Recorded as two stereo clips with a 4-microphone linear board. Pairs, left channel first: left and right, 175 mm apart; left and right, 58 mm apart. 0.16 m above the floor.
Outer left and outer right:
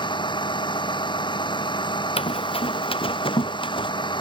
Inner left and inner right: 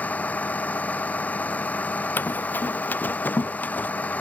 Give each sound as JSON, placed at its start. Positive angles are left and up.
{"t": 0.0, "sound": "a vehicle", "side_deg": 25}
{"t": 2.2, "sound": "running footsteps", "side_deg": 35}